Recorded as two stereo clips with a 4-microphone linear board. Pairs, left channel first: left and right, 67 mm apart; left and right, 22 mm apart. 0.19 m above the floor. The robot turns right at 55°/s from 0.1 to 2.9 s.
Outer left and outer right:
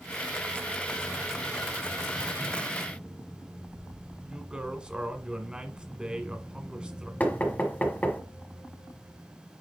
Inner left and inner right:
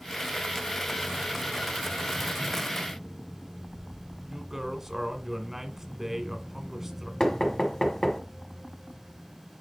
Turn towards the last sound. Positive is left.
turn(degrees=25)  # may be behind; listen again after turning